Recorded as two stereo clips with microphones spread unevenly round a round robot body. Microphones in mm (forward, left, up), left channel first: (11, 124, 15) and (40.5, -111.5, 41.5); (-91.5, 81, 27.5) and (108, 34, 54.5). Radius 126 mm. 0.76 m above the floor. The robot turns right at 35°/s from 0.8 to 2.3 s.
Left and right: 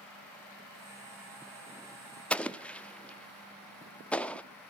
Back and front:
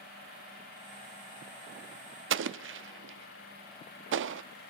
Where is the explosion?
15° left, 0.7 m.